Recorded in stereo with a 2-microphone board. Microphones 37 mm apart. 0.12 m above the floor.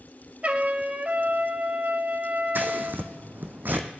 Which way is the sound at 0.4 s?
40° right (ahead or behind).